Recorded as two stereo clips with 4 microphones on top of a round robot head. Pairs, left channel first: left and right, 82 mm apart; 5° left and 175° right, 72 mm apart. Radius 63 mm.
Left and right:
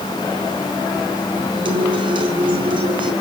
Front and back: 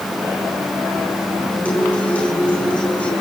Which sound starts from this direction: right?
A guitar, at 1.6 s.